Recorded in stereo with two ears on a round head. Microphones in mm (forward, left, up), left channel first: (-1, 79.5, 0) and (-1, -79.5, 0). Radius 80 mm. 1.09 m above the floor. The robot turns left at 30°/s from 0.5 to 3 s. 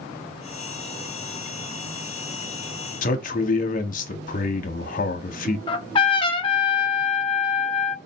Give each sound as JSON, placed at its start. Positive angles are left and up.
{"t": 3.0, "sound": "a man speaking", "side_deg": 45, "distance_m": 0.8}
{"t": 5.7, "sound": "a trumpet", "side_deg": 30, "distance_m": 0.5}